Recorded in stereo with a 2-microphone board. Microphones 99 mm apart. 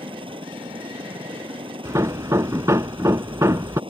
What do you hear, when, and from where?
0.0 s a helicopter: 60° right (ahead or behind)
1.9 s hammering: 30° right (ahead or behind)